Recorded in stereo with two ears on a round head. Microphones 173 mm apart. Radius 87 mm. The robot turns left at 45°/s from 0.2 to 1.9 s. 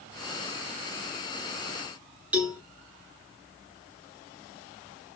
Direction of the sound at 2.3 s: 10° right (ahead or behind).